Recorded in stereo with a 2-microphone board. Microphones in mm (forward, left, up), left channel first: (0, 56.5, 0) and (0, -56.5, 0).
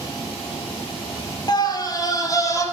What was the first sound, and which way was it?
A scream, 40° left (ahead or behind).